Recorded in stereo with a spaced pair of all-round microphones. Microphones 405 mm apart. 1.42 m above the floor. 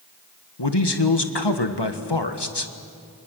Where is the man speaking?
80° left, 1.7 m.